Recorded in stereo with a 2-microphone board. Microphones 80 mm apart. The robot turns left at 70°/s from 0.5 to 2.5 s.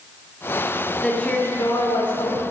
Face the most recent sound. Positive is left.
turn(degrees=75)